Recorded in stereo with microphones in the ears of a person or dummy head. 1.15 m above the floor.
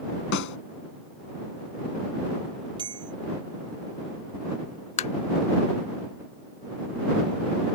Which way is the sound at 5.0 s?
30° left (ahead or behind).